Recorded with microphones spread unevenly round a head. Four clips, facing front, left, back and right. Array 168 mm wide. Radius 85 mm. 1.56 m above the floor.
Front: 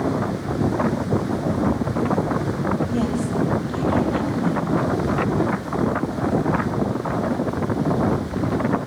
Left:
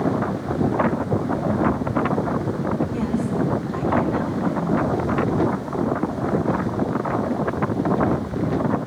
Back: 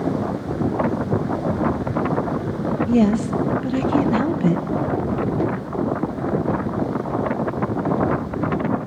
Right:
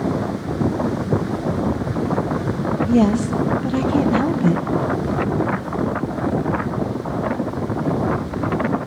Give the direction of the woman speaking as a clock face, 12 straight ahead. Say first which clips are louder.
Right 7 dB, back 5 dB; 5 o'clock.